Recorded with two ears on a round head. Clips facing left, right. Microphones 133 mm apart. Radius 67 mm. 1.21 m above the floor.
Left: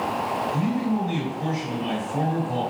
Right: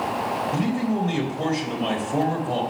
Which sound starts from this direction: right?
A man speaking, at 0.5 s.